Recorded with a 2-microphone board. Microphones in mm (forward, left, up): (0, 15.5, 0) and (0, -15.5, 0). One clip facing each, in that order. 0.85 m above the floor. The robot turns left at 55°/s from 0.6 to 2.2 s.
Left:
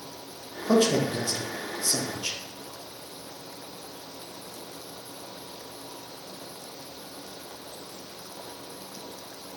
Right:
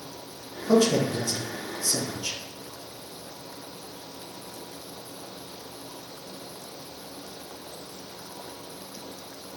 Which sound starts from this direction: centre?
A man speaking, at 0.7 s.